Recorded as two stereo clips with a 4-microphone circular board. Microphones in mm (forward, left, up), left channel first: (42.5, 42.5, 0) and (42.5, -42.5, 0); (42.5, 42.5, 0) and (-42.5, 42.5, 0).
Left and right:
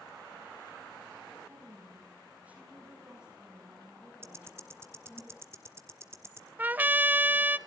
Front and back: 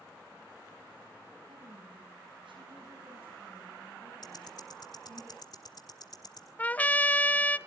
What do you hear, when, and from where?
1.5 s a woman speaking: 155° right, 8.5 m; by 5.2 s 175° left, 8.5 m
4.2 s ticking: 30° right, 2.5 m
6.6 s a trumpet: 45° right, 0.5 m